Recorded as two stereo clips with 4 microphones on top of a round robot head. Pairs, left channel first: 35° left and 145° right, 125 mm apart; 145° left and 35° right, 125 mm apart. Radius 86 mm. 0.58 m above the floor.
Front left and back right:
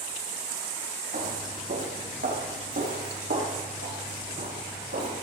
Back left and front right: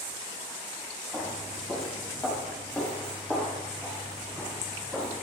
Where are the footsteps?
130° right, 3.5 m.